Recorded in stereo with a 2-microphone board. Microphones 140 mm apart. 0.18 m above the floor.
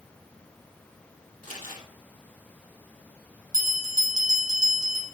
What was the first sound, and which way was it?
Crumpling, 75° left (ahead or behind).